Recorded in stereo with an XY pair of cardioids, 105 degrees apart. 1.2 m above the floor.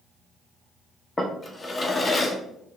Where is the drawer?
20° left, 0.7 m.